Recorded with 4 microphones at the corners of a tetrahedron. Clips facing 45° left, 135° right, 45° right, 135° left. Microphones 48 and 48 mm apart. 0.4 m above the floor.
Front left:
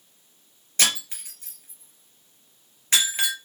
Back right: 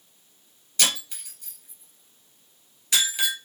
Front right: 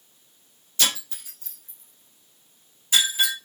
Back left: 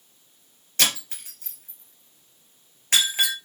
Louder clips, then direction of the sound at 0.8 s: Front left 1 dB, back left 1 dB; 100° left.